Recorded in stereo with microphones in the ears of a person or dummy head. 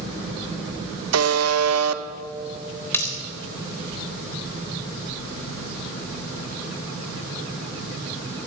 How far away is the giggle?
No giggle in this recording.